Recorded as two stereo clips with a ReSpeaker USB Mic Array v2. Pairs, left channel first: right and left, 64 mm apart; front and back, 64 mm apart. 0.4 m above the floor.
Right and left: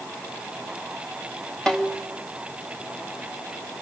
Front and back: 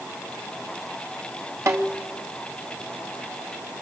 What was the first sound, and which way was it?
A snare drum, 170° right.